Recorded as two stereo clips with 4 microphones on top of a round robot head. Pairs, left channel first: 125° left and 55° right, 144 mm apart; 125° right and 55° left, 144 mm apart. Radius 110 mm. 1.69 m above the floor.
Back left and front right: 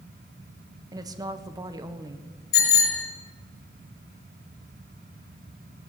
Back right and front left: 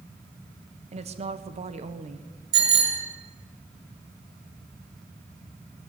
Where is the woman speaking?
10° left, 1.6 m.